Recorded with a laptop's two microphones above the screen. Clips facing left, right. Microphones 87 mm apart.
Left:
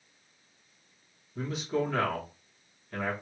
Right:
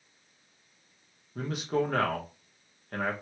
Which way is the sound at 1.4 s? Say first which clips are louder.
Right 1 dB; 50° right (ahead or behind).